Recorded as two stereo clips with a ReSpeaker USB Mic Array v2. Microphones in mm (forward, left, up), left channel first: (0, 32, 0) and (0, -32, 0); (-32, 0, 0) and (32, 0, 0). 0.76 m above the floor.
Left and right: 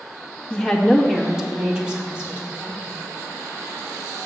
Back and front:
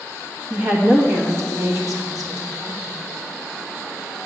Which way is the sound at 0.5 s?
35° left.